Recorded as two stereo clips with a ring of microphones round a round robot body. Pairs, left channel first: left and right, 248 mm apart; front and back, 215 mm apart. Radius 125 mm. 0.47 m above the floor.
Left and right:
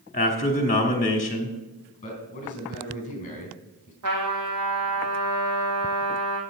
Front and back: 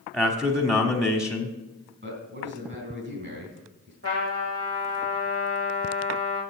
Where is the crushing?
I don't hear crushing.